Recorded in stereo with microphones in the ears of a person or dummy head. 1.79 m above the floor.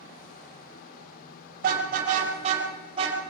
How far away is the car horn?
About 5.5 m.